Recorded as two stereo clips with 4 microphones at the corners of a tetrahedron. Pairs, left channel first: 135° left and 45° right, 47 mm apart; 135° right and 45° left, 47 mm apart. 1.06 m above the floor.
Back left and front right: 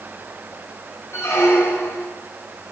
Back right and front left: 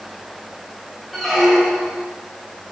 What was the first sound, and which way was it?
A squeak, 135° left.